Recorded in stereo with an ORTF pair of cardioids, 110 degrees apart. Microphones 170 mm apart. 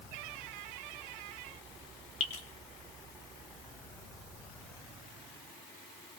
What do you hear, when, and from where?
2.2 s dripping: 45° left, 3.5 m